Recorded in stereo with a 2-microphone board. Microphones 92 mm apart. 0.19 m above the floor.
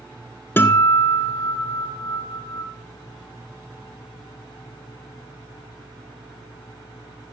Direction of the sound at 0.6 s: 25° left (ahead or behind).